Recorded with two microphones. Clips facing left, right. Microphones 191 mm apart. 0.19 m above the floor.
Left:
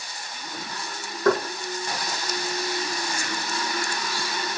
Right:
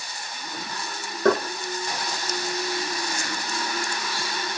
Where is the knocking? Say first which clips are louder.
Right 1 dB; 65° right (ahead or behind), 6 m.